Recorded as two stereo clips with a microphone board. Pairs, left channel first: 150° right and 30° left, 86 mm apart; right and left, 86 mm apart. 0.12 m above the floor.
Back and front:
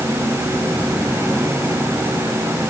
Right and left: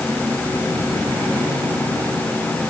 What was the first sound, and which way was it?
Only background noise.